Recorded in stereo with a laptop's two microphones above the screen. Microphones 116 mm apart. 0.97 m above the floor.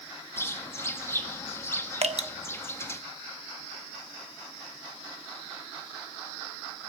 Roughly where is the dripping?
Right.